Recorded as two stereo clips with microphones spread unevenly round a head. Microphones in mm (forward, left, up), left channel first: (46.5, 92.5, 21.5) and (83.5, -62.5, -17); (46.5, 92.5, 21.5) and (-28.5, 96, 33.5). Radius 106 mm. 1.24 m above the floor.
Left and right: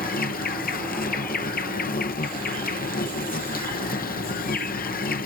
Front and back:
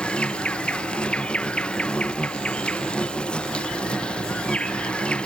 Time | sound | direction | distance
0.0 | an insect | 70° left | ?